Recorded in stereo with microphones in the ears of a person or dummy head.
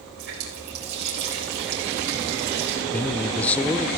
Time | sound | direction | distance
0.2 | a running tap | 65° right (ahead or behind) | 3.5 m
2.9 | a man speaking | 10° left (ahead or behind) | 0.5 m